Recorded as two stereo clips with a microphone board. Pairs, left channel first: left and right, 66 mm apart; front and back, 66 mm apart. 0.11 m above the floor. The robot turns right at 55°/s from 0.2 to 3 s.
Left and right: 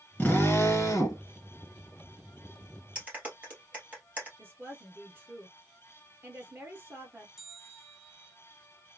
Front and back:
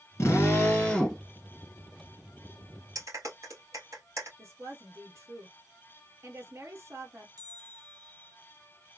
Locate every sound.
0.2 s a drill: 30° left, 2 m; by 1.2 s 90° left, 2 m
3.0 s a clap: 155° right, 2.5 m
4.4 s a woman speaking: 140° right, 2 m
7.4 s a bell: 170° right, 1.7 m